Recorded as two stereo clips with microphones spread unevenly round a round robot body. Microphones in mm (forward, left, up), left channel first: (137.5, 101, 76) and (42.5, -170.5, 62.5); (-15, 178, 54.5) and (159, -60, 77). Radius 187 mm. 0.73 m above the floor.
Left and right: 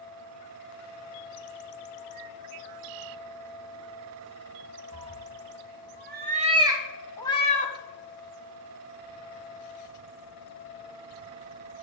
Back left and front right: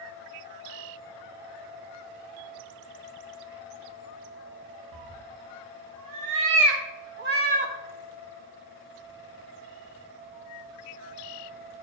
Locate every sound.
4.9 s a cat meowing: 80° right, 1.9 m; by 7.8 s 15° left, 1.3 m